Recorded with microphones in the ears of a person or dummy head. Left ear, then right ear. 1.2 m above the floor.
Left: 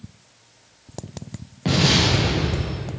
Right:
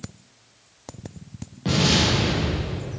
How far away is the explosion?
About 1.1 m.